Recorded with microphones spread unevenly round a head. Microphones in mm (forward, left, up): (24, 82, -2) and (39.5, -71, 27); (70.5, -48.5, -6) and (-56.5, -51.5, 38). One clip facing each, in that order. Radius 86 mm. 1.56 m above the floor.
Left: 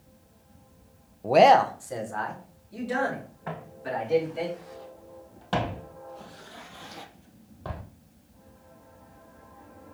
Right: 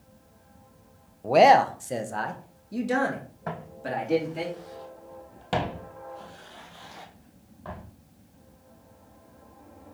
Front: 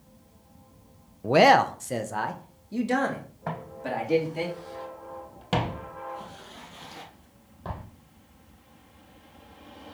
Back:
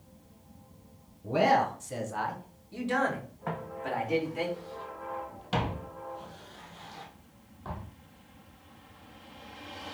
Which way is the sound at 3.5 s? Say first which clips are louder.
Right 1 dB, front 2 dB; 55° right.